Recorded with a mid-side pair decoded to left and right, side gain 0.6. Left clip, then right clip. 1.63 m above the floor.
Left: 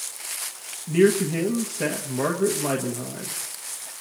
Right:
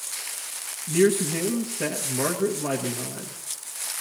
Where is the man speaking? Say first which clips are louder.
Left 2 dB; 10° left, 1.6 m.